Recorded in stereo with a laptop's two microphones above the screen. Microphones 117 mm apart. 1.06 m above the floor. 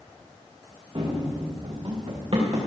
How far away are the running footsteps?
About 5 m.